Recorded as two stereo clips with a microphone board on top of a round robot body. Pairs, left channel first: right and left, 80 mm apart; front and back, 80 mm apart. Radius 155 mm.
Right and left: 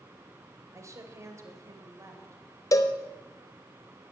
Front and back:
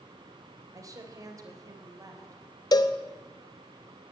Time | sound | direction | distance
0.7 | a woman speaking | 140° left | 2.5 m
2.7 | a cowbell | 40° right | 0.8 m